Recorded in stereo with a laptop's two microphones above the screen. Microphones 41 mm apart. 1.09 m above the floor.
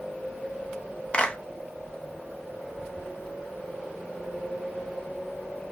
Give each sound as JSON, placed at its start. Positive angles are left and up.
{"t": 1.1, "sound": "a clap", "side_deg": 30, "distance_m": 0.8}